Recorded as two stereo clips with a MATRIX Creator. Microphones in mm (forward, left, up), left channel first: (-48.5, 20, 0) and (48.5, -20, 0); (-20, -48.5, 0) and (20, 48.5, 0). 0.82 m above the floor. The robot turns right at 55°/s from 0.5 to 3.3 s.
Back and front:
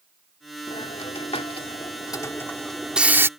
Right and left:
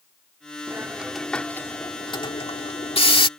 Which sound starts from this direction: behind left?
A hiss, at 0.7 s.